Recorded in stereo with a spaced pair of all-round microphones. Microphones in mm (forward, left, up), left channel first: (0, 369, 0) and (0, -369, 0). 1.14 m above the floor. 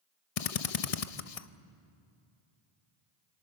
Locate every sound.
0.4 s a drill: 55° left (ahead or behind), 0.7 m